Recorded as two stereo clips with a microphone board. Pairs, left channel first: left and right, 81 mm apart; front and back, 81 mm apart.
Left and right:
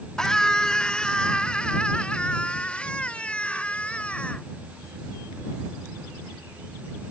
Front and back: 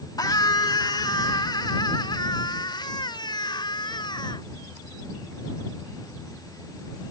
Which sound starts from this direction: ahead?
A scream, at 0.2 s.